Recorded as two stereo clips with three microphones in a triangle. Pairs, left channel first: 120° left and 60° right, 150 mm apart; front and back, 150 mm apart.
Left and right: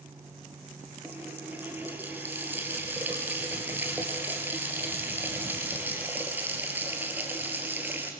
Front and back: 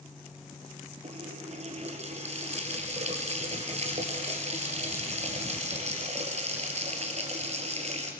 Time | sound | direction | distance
1.0 | a running tap | 140° right | 3.5 m